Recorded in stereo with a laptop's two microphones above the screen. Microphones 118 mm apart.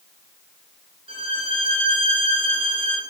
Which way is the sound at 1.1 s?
50° right (ahead or behind).